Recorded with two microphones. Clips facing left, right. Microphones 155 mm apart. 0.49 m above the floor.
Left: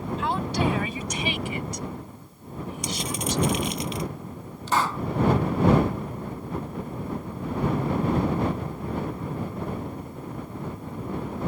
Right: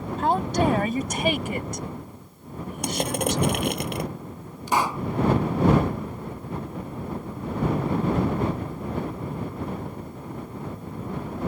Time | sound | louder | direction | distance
0.2 | a woman speaking | right 5 dB | 45° right (ahead or behind) | ?
2.8 | crushing | right 6 dB | 60° right (ahead or behind) | ?
4.7 | a pop | right 1 dB | 15° right (ahead or behind) | ?